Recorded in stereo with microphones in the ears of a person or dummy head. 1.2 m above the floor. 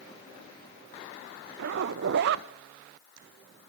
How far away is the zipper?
About 0.6 m.